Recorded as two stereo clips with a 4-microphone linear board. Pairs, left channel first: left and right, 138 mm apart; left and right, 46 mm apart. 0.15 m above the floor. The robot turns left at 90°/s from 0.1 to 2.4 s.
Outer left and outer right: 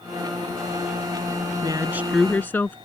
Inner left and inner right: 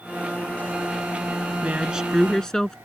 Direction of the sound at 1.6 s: 130° right.